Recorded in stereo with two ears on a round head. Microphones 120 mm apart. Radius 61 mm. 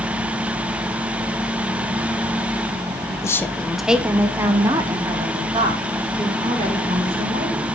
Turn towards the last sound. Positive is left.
turn(degrees=-40)  # may be behind; listen again after turning